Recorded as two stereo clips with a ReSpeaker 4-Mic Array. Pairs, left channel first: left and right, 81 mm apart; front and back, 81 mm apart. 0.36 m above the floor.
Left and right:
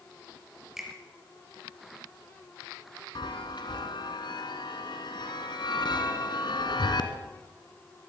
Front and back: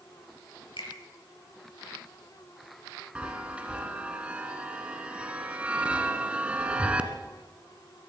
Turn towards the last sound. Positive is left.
turn(degrees=105)